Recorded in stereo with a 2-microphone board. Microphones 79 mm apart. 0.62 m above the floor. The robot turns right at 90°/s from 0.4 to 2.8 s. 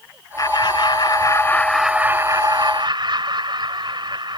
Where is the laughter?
55° left; by 4.4 s 90° right.